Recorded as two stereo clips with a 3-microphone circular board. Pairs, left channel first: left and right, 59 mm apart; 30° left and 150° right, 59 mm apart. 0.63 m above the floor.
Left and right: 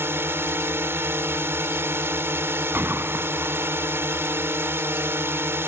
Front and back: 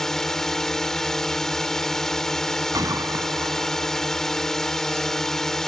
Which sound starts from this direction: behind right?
A gunshot, at 2.7 s.